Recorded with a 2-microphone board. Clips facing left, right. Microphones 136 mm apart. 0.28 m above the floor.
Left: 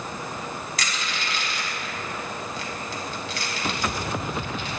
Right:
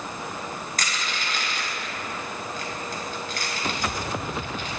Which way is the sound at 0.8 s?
45° right (ahead or behind).